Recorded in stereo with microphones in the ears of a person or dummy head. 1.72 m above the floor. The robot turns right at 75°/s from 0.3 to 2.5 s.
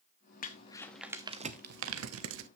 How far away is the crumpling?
About 0.9 m.